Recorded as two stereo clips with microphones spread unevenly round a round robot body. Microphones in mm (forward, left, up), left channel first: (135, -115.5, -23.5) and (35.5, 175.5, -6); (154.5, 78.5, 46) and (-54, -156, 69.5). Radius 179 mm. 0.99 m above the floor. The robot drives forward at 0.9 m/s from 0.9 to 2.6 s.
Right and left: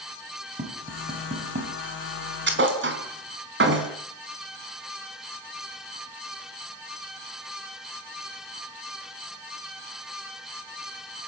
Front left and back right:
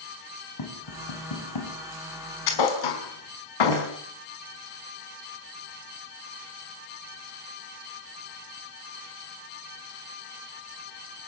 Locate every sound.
0.6 s tapping: 45° left, 7 m
2.5 s a thud: 55° left, 5 m